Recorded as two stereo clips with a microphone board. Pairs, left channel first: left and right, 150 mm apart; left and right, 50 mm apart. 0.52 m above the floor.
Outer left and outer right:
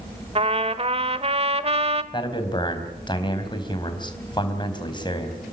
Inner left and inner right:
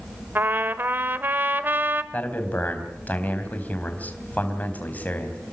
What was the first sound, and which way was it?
A trumpet, 40° right (ahead or behind).